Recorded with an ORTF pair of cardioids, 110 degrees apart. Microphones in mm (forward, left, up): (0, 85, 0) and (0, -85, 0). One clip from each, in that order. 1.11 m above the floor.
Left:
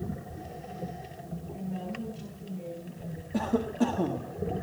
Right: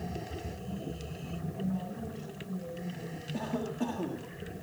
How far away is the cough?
About 1.6 m.